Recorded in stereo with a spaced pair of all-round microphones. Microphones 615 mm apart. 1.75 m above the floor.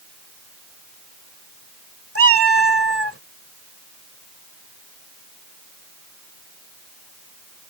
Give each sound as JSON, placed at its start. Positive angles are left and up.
{"t": 2.1, "sound": "a cat meowing", "side_deg": -20}